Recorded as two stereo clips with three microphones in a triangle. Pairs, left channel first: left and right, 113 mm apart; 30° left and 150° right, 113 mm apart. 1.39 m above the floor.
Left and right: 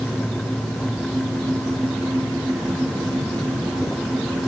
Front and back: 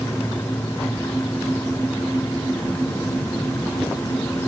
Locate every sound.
Only background noise.